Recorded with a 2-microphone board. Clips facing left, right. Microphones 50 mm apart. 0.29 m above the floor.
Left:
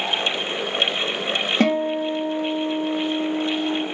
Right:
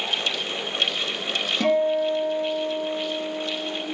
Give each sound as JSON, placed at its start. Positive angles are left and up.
{"t": 1.6, "sound": "a guitar", "side_deg": 45, "distance_m": 3.0}